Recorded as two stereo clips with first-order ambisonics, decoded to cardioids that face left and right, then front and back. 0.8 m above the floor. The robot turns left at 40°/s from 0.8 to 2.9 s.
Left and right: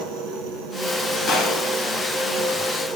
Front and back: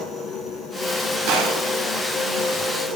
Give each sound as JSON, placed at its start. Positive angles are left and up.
{"t": 0.0, "sound": "an engine running", "azimuth_deg": -80, "distance_m": 7.0}
{"t": 1.3, "sound": "a gunshot", "azimuth_deg": 170, "distance_m": 5.0}